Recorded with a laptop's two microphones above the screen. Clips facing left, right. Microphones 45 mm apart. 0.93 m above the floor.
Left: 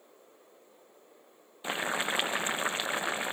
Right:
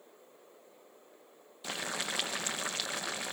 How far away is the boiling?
About 0.6 m.